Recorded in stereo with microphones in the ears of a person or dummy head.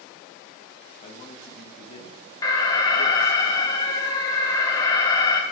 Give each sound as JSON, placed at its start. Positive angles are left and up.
{"t": 1.0, "sound": "a man speaking", "side_deg": 35, "distance_m": 1.1}
{"t": 2.4, "sound": "an alarm", "side_deg": 15, "distance_m": 0.6}